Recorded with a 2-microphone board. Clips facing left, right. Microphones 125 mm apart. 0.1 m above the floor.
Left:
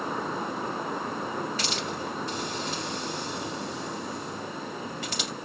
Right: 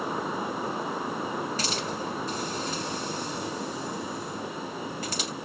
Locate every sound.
1.6 s a hiss: 40° right (ahead or behind), 2.5 m